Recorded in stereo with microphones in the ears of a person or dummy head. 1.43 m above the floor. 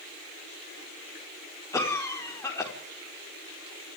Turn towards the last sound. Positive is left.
turn(degrees=15)  # may be behind; listen again after turning